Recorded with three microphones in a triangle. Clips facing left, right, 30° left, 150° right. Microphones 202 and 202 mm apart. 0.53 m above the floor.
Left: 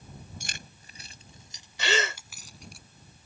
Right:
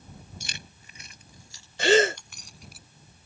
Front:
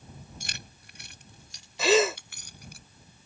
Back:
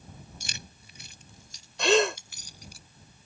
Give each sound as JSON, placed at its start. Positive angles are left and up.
{"t": 0.4, "sound": "keys jangling", "azimuth_deg": 60}
{"t": 1.8, "sound": "a gasp", "azimuth_deg": -55}